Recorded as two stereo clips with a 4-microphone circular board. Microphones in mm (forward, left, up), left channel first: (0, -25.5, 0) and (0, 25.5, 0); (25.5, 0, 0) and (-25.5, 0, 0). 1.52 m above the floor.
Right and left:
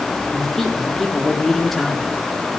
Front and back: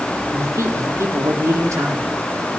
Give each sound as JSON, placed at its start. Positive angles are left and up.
{"t": 0.3, "sound": "a man speaking", "azimuth_deg": -175, "distance_m": 4.5}